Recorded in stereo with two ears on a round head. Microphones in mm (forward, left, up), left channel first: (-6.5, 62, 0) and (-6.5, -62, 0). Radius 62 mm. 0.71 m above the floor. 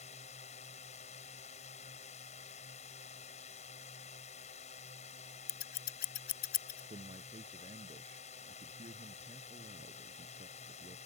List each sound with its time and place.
0.0 s a drone: 55° left (ahead or behind)
5.5 s scissors: 70° left (ahead or behind)
6.9 s a man speaking: 40° right (ahead or behind)